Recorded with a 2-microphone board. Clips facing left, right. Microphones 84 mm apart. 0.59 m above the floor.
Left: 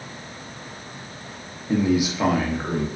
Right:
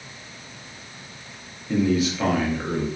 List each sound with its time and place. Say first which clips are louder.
1.7 s a man speaking: left 1 dB; 15° left (ahead or behind), 0.6 m